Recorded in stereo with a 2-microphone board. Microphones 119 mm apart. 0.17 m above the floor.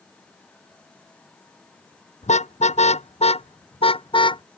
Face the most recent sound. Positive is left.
turn(degrees=45)  # may be behind; listen again after turning